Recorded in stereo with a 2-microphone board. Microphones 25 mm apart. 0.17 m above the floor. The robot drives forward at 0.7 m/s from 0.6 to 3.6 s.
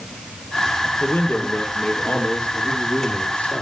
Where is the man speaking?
75° left (ahead or behind), 3.5 m; by 3.6 s 60° left (ahead or behind), 4 m.